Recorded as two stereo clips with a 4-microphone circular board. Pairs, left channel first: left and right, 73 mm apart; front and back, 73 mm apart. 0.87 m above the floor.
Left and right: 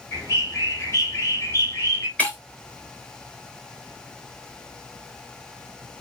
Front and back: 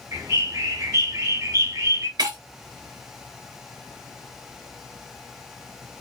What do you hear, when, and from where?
0.1 s a bird: 140° left, 2.5 m
2.2 s breaking glass: 160° left, 1.5 m